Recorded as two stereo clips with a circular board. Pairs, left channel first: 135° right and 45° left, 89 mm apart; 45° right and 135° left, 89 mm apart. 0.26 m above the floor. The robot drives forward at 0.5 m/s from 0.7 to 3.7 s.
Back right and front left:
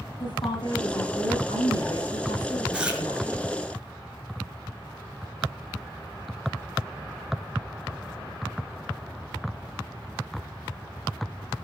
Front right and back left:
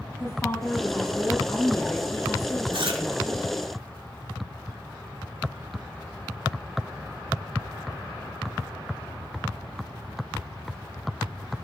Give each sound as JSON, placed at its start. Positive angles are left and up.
{"t": 0.2, "sound": "a woman speaking", "azimuth_deg": -110, "distance_m": 8.0}
{"t": 2.7, "sound": "chewing", "azimuth_deg": 125, "distance_m": 4.0}